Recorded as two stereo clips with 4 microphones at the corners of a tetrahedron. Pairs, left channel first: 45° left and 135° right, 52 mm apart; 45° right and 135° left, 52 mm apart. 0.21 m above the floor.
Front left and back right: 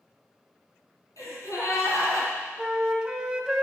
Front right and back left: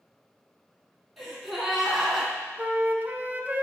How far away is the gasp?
About 2.5 m.